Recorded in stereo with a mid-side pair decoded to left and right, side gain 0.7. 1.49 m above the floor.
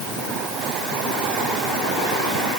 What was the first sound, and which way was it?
Only background noise.